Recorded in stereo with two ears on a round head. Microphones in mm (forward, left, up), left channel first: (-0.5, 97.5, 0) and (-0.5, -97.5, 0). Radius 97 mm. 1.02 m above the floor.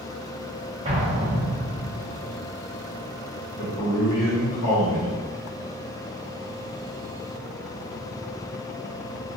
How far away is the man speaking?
About 1.4 m.